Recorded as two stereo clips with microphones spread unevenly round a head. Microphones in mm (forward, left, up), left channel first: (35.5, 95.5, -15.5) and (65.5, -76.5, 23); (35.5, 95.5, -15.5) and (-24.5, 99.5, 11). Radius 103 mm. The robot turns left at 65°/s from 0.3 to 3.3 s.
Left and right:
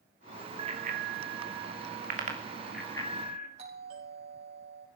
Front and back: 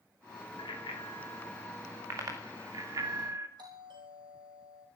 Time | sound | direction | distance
0.6 | a bicycle bell | 25° right | 2.5 m
3.6 | a doorbell | 145° right | 6 m